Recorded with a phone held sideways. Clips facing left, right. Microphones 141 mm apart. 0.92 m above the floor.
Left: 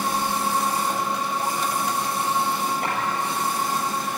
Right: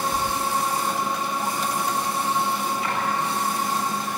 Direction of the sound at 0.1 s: 90° right.